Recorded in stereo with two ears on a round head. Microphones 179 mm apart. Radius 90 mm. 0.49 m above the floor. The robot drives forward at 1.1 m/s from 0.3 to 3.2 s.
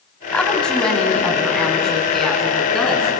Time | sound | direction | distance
0.3 | a woman speaking | 5° left (ahead or behind) | 3 m